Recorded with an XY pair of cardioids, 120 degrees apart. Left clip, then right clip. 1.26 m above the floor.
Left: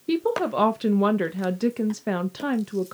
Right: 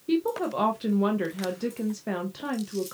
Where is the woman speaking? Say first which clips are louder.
Left 3 dB; 30° left, 0.6 m.